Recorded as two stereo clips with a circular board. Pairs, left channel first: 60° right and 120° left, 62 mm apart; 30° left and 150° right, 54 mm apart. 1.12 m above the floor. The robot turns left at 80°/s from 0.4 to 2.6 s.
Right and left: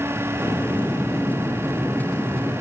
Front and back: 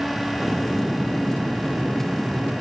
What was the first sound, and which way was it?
Only background noise.